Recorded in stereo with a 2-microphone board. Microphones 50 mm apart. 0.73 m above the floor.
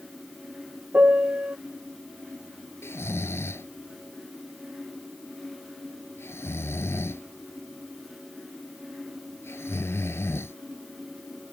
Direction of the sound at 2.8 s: 60° left (ahead or behind).